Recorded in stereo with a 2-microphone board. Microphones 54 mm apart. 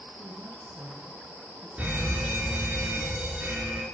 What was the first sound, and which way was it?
A woman speaking, 55° right (ahead or behind).